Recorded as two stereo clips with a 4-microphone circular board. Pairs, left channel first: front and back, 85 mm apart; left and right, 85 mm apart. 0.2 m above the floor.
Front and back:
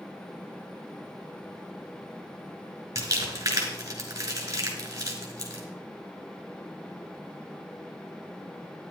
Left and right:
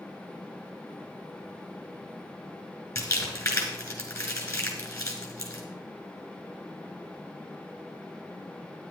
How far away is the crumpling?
About 2.5 m.